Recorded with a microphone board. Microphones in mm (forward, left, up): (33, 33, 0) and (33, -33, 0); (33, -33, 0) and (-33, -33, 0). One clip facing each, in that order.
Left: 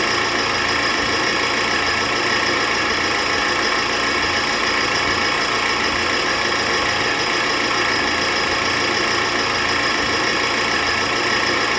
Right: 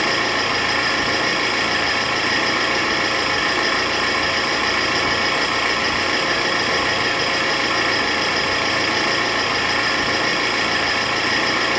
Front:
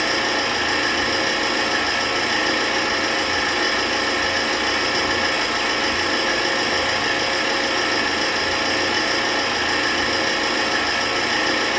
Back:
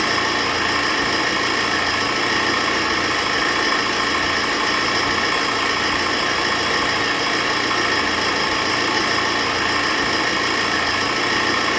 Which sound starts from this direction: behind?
An engine running, at 0.0 s.